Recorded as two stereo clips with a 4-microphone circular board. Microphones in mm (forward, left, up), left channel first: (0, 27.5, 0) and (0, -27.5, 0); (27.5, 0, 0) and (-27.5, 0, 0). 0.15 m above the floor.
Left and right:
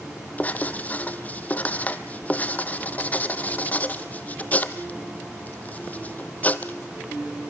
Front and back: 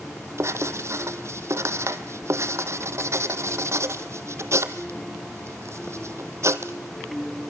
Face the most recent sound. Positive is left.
turn(degrees=150)